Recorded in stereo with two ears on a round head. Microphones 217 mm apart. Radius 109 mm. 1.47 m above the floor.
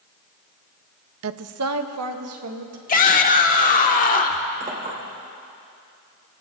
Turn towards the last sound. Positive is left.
turn(degrees=-35)  # may be behind; listen again after turning